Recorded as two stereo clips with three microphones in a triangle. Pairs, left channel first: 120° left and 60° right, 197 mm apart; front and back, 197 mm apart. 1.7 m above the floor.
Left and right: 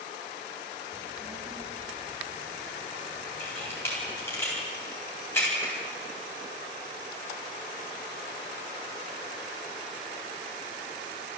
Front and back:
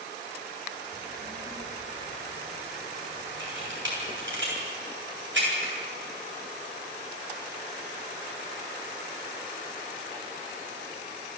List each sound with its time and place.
0.9 s a child speaking: 140° right, 7 m; by 4.4 s 105° right, 9 m
3.4 s a camera shutter: 160° right, 10 m